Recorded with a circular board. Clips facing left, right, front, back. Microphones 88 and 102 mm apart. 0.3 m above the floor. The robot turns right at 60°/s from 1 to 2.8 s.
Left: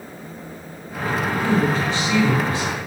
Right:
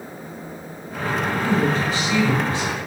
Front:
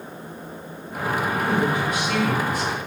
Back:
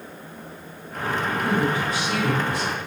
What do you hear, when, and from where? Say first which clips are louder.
1.4 s a woman speaking: left 1 dB, even; 160° left, 1.7 m; by 2.8 s 120° right, 1.7 m